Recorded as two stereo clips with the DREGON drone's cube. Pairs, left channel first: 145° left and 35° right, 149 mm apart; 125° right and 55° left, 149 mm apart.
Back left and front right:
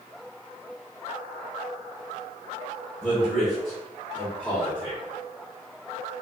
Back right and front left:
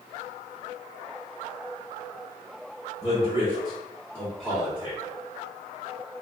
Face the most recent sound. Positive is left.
turn(degrees=95)